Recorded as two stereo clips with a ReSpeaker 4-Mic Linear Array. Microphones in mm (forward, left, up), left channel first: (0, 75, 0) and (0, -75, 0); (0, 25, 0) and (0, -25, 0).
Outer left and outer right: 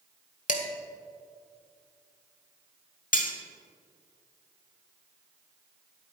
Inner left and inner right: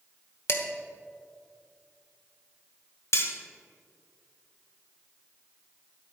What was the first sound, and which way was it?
Dishes clattering, 55° left (ahead or behind).